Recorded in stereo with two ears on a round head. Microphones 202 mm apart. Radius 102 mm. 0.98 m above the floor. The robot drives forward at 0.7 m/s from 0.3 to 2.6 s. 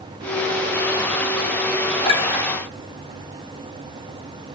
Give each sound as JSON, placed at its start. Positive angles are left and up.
{"t": 2.0, "sound": "a clink", "side_deg": 25, "distance_m": 8.0}